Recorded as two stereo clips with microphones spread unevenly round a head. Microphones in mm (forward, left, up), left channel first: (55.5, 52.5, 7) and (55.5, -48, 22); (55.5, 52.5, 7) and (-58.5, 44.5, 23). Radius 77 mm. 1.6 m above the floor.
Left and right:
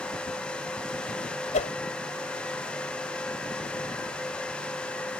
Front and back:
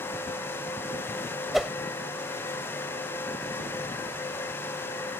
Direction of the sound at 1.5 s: 100° left.